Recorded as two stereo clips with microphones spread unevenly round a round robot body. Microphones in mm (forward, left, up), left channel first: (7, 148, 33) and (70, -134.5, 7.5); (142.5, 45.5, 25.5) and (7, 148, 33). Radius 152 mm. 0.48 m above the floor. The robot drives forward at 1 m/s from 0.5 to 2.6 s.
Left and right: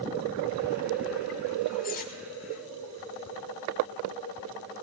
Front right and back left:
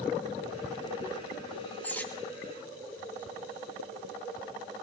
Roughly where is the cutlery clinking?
Ahead left.